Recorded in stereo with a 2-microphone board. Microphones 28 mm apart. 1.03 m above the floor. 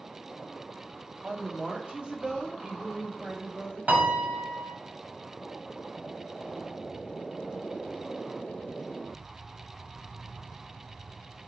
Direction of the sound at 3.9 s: 65° right (ahead or behind).